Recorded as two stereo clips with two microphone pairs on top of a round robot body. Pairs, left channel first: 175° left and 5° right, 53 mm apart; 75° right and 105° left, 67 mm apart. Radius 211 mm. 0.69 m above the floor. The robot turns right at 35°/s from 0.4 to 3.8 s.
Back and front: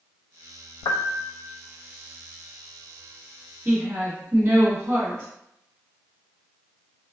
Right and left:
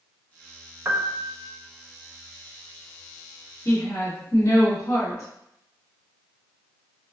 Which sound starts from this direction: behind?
A piano, at 0.8 s.